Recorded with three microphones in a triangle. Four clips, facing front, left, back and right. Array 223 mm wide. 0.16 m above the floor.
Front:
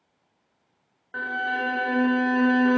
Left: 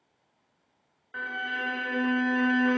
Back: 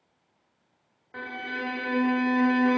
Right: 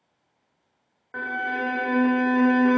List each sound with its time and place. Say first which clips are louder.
1.1 s a violin: right 5 dB, front 7 dB; 70° right, 2 m